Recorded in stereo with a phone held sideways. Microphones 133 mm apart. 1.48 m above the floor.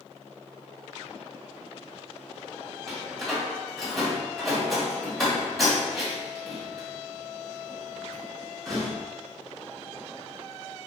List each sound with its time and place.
2.9 s a door slam: centre (ahead or behind), 2.5 m